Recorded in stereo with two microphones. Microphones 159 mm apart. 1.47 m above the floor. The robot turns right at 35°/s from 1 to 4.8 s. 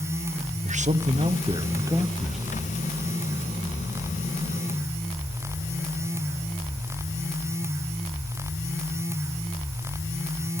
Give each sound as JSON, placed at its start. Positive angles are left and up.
{"t": 0.6, "sound": "a man speaking", "azimuth_deg": -50, "distance_m": 0.9}